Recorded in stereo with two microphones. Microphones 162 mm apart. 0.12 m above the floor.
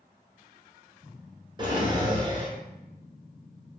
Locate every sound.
1.6 s a drawer: 30° right (ahead or behind), 0.7 m